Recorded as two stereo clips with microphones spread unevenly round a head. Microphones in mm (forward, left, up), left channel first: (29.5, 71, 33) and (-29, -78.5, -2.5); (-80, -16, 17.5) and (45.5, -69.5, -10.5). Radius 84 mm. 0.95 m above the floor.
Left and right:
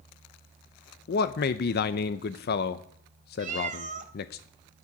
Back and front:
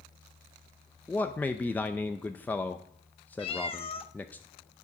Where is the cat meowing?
160° right, 1.0 m.